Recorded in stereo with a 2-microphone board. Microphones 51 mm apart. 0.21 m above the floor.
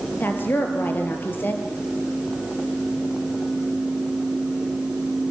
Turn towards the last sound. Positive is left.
turn(degrees=40)  # may be behind; listen again after turning